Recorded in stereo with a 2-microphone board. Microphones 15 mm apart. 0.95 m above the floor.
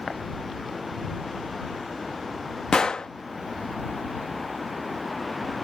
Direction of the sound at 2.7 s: 65° left (ahead or behind).